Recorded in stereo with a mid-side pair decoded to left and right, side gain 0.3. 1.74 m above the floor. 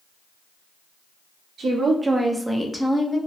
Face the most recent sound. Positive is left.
turn(degrees=20)